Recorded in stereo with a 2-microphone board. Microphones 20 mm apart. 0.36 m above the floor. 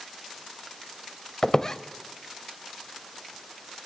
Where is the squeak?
35° left (ahead or behind), 0.7 m.